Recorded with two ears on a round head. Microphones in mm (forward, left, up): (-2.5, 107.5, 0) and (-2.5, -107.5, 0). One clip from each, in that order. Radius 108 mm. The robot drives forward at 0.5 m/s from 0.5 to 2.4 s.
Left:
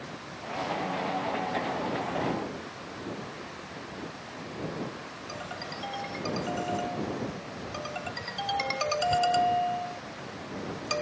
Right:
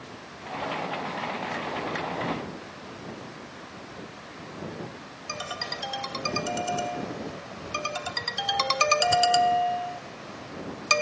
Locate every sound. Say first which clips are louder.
5.3 s a ringtone: right 7 dB; 50° right (ahead or behind)